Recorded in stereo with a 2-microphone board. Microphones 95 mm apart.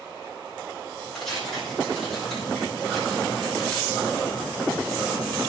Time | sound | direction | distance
1.1 | tearing paper | 5° left (ahead or behind) | 4.5 m